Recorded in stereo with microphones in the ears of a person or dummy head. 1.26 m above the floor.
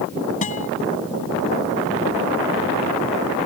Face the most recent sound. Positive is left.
turn(degrees=35)  # may be behind; listen again after turning